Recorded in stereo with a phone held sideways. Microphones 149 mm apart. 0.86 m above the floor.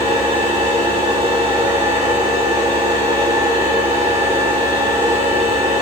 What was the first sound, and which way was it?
A machine running, 35° right (ahead or behind).